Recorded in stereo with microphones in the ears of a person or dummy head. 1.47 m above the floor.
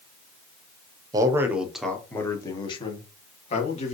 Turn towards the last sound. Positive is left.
turn(degrees=40)  # may be behind; listen again after turning